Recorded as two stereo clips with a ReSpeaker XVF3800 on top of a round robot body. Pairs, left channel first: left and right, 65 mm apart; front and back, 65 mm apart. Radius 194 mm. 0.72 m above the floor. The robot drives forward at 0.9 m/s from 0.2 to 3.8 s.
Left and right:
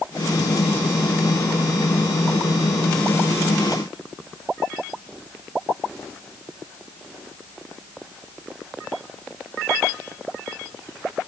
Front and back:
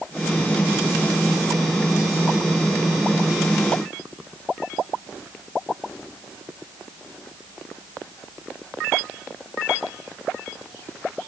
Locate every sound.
Only background noise.